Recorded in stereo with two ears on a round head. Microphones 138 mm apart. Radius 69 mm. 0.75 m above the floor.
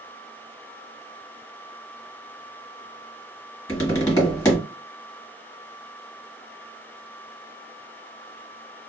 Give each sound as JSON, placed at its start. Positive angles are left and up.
{"t": 3.7, "sound": "tapping", "side_deg": 20, "distance_m": 1.3}